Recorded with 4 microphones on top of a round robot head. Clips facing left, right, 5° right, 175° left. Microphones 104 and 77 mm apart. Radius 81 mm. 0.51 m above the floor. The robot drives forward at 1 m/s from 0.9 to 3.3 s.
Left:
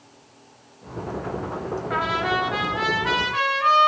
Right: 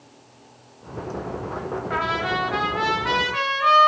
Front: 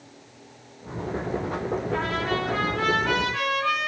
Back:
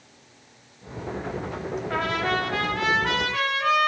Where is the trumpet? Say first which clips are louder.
Left 1 dB, back 4 dB; straight behind, 2.5 m.